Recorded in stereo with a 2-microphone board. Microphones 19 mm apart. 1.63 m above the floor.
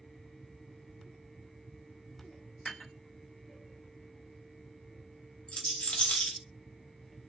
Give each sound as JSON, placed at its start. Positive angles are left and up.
{"t": 2.6, "sound": "dishes clattering", "side_deg": 40, "distance_m": 0.9}
{"t": 5.5, "sound": "a rattle", "side_deg": 70, "distance_m": 0.8}